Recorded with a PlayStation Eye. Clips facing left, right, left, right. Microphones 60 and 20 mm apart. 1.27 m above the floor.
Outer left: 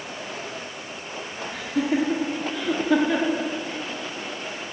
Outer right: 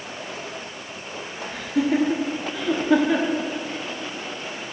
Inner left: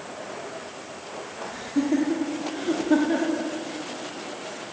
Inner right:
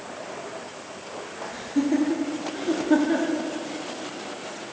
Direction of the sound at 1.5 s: Centre (ahead or behind).